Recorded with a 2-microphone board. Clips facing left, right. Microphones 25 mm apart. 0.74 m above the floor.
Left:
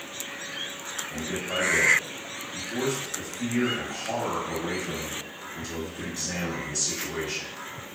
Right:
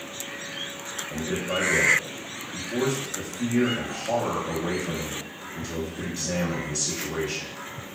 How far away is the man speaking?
About 0.9 m.